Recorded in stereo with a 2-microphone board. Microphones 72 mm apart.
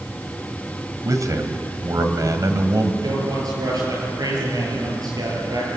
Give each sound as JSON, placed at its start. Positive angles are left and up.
{"t": 1.1, "sound": "a man speaking", "side_deg": -50, "distance_m": 2.0}
{"t": 3.0, "sound": "a man speaking", "side_deg": -60, "distance_m": 8.0}